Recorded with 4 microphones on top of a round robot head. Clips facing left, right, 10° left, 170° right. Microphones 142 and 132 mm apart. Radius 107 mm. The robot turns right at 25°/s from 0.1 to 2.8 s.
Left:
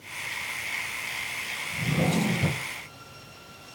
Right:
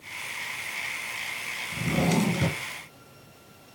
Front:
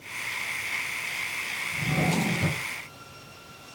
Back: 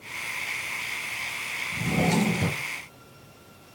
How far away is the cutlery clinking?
I don't hear cutlery clinking.